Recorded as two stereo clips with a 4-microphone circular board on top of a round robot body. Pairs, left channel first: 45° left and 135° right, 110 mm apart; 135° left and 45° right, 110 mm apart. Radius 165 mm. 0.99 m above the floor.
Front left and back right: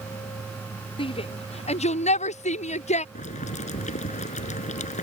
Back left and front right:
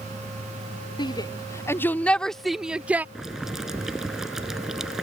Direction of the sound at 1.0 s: 85° left.